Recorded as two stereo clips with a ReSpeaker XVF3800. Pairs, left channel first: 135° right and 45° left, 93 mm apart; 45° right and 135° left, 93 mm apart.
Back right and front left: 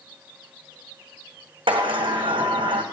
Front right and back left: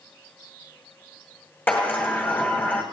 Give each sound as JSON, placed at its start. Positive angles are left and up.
{"t": 1.7, "sound": "a sliding door", "azimuth_deg": 20, "distance_m": 2.0}